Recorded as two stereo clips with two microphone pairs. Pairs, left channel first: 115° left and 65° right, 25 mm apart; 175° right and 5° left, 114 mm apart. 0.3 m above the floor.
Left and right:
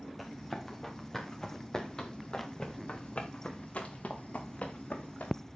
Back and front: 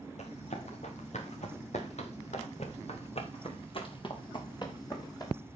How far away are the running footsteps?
About 4.5 m.